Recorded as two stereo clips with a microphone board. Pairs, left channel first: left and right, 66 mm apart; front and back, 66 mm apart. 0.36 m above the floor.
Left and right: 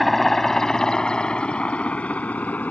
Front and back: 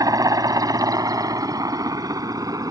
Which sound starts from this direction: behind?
A helicopter, at 0.0 s.